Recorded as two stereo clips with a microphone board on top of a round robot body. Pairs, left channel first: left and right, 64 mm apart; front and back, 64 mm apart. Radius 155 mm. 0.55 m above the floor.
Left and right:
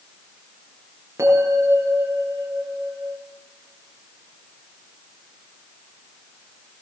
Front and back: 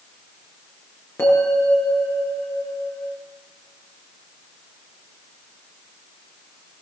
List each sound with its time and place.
1.2 s a bell: 50° right, 6 m